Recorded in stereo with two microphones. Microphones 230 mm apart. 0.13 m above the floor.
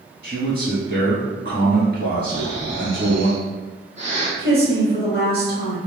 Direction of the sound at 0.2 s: 45° right (ahead or behind).